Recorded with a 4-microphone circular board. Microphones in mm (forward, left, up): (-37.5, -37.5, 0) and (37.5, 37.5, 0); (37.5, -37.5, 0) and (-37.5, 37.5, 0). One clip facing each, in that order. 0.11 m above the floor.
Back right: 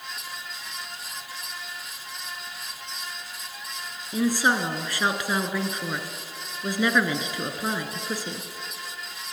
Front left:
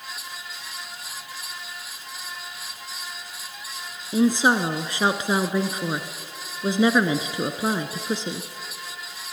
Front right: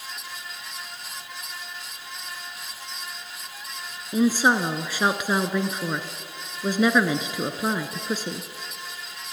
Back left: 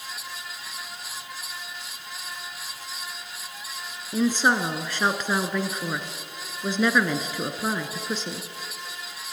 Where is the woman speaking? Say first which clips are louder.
Front left 4 dB, front right 2 dB; 20° left, 1.1 m.